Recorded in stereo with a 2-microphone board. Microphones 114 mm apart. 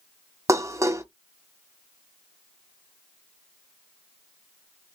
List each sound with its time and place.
0.5 s dishes clattering: 25° right (ahead or behind), 0.6 m